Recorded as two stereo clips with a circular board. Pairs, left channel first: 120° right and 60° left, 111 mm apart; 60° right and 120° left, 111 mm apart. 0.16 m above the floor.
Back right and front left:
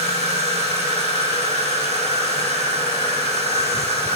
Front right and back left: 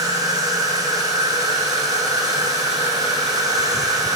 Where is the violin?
I don't hear a violin.